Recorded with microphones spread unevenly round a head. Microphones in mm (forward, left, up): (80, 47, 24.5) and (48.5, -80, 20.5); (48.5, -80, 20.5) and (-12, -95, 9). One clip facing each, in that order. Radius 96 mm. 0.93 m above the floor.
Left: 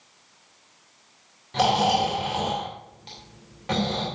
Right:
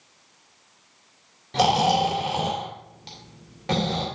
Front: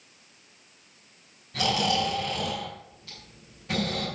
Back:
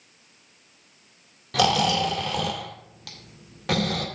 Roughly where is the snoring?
Behind.